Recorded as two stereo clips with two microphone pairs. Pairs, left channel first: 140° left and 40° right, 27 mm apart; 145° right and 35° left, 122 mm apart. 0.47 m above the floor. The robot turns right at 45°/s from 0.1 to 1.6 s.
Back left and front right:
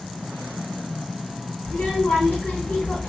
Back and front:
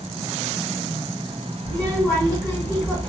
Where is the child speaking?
140° left, 2.5 m.